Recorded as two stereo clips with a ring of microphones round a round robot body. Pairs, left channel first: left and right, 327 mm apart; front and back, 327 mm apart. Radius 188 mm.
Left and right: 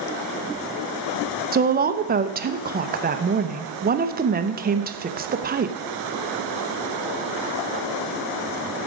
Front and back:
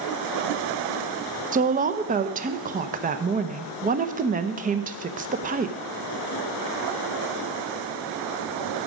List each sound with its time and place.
1.5 s a woman speaking: 130° right, 0.8 m